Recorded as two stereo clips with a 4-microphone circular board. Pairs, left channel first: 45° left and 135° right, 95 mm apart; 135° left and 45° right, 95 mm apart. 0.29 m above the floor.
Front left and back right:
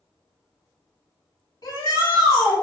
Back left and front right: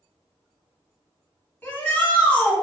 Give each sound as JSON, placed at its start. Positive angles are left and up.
{"t": 1.6, "sound": "a shout", "azimuth_deg": 65, "distance_m": 1.6}